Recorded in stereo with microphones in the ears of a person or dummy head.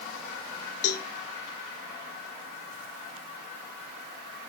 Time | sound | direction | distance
0.8 | a cowbell | 55° left (ahead or behind) | 1.0 m